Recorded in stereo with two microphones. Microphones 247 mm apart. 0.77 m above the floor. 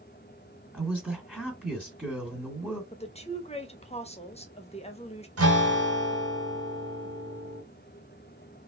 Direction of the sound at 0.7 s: Centre (ahead or behind).